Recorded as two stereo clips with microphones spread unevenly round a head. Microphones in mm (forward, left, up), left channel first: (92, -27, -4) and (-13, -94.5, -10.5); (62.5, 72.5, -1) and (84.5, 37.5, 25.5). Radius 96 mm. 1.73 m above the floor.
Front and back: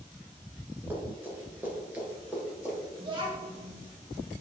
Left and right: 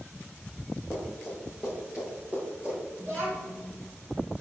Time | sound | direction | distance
0.9 | running footsteps | 100° right | 1.7 m
3.0 | a child speaking | 100° right | 1.7 m